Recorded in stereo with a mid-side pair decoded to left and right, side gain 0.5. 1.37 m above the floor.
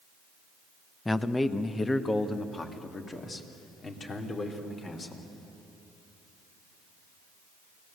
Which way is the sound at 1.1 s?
15° left.